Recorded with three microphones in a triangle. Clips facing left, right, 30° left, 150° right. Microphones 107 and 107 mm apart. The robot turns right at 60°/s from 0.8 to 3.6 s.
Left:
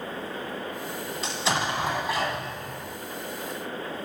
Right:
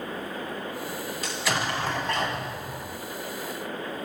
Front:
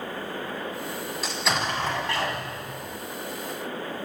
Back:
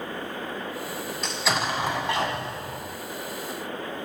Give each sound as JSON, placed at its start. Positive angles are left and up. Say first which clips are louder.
{"t": 1.2, "sound": "an explosion", "louder": "left 2 dB, back 1 dB", "azimuth_deg": 110, "distance_m": 1.2}